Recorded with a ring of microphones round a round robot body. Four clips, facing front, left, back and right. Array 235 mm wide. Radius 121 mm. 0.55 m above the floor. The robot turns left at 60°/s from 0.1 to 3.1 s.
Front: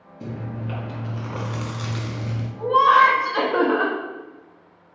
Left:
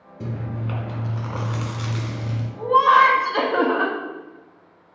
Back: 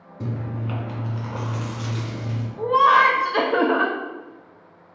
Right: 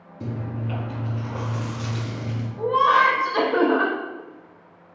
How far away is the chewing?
About 1.3 m.